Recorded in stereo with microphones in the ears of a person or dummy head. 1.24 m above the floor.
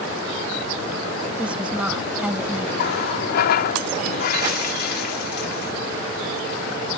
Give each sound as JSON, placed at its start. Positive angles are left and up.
{"t": 1.4, "sound": "a woman speaking", "side_deg": -10}
{"t": 2.8, "sound": "a running tap", "side_deg": 55}